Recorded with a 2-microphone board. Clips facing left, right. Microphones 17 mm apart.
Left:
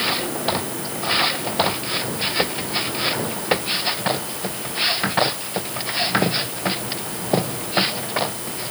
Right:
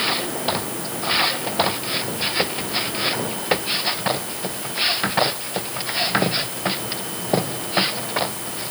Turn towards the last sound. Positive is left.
No sound to turn to.